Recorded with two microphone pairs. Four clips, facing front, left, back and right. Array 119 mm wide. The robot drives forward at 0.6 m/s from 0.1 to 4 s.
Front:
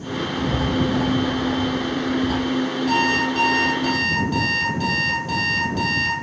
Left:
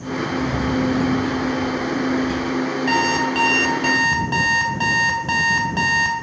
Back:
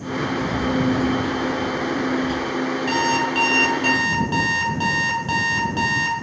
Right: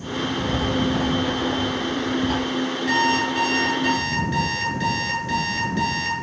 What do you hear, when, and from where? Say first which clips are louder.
0.4 s writing: left 2 dB, front 1 dB; 35° right, 2 m; by 2.4 s 60° right, 1.4 m
2.9 s an alarm clock: even, even; 90° left, 4 m; by 6.1 s 100° left, 4 m